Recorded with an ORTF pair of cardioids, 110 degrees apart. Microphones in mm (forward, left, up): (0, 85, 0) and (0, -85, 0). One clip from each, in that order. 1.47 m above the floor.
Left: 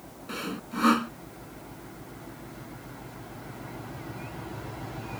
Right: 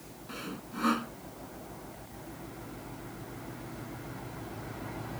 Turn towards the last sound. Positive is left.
turn(degrees=40)